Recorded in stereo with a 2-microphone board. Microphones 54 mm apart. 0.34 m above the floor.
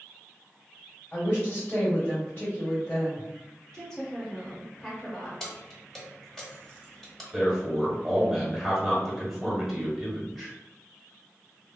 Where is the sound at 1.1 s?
30° left (ahead or behind), 1.8 m.